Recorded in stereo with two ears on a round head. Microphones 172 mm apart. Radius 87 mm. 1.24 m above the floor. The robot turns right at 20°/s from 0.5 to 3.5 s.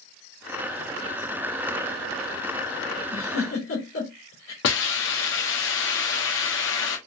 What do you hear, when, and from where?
3.1 s a giggle: 75° left (ahead or behind), 1.9 m
4.6 s a hiss: 70° left (ahead or behind), 1.1 m